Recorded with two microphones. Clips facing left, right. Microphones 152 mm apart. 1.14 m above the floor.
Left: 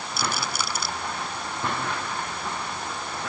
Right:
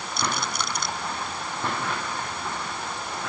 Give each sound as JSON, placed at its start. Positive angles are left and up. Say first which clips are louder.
{"t": 0.2, "sound": "a rattle", "louder": "right 1 dB", "side_deg": 5}